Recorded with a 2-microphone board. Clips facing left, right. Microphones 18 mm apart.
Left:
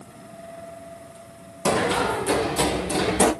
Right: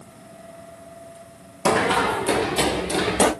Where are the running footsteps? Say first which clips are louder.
Right 2 dB; 60° right (ahead or behind), 0.8 m; by 3.3 s 70° right (ahead or behind), 2.5 m.